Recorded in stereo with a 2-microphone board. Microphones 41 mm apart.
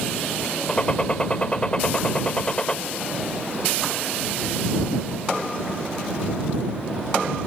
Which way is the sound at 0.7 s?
25° left (ahead or behind).